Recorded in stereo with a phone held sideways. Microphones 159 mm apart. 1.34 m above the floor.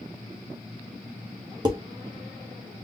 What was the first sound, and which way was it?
Dishes clattering, 25° right (ahead or behind).